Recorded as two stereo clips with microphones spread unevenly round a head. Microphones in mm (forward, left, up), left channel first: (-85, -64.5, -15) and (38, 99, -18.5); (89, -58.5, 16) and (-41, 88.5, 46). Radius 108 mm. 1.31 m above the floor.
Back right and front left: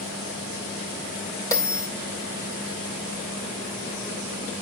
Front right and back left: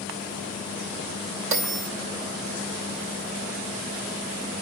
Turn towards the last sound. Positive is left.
turn(degrees=160)